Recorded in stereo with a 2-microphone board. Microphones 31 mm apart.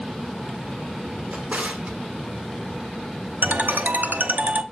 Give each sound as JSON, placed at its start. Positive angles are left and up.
{"t": 1.3, "sound": "a drawer", "side_deg": -45, "distance_m": 1.4}
{"t": 3.4, "sound": "a ringtone", "side_deg": -65, "distance_m": 0.9}